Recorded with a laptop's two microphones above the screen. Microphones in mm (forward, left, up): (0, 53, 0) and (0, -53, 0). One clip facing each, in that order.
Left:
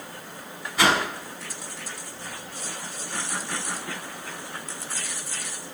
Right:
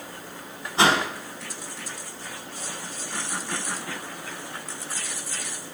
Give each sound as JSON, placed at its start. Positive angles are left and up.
{"t": 0.8, "sound": "a whoosh", "side_deg": -25, "distance_m": 1.3}